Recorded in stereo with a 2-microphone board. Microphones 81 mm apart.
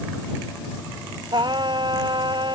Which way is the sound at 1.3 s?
60° right (ahead or behind).